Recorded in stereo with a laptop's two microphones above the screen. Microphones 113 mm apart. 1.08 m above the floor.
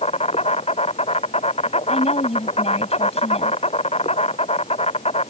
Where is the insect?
70° left (ahead or behind).